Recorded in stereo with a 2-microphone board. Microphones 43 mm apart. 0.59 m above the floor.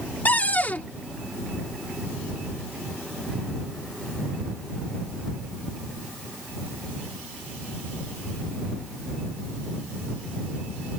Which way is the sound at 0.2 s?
40° left (ahead or behind).